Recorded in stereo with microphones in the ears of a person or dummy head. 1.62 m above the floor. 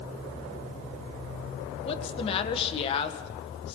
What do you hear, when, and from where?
1.9 s a woman speaking: 30° left (ahead or behind), 1.7 m